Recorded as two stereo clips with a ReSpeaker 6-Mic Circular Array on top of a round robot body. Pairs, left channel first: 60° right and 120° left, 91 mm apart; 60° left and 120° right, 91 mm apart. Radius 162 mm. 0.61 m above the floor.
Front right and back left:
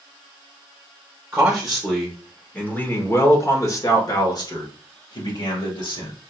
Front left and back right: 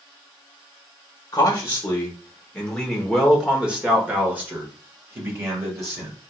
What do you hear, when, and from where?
1.3 s a man speaking: 55° left, 1.4 m; by 6.2 s 65° right, 2.5 m